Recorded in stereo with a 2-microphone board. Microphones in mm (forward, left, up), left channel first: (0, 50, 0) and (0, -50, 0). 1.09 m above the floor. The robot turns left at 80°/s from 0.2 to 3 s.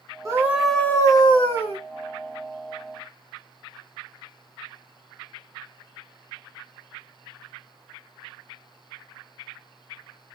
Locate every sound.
0.2 s a scream: 145° right, 1.0 m; by 1.8 s 90° left, 1.0 m